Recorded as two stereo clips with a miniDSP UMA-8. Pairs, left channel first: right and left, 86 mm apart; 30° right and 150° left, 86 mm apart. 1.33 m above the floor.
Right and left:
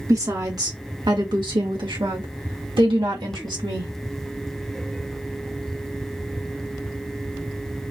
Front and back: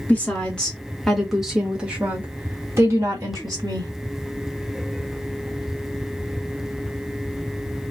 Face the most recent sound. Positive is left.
turn(degrees=110)